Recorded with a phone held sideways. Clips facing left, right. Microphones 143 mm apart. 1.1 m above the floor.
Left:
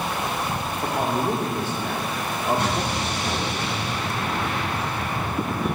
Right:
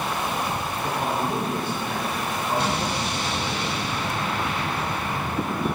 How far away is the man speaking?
About 2.5 m.